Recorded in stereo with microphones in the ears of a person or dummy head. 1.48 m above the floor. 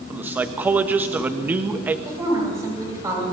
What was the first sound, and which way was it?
A man speaking, 10° right (ahead or behind).